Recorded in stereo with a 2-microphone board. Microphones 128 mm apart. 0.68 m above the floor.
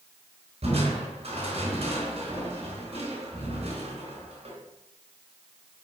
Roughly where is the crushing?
Right.